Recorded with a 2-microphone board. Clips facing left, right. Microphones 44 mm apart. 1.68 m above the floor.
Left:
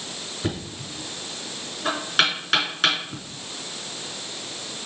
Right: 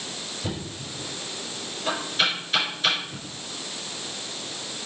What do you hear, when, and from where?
0.4 s knocking: 75° left (ahead or behind), 3.5 m